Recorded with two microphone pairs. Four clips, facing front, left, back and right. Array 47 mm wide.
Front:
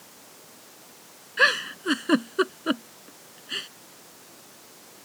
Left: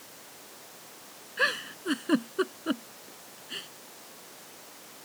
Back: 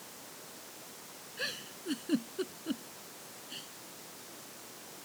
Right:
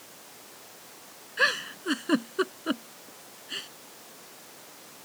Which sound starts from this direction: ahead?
A giggle, at 1.4 s.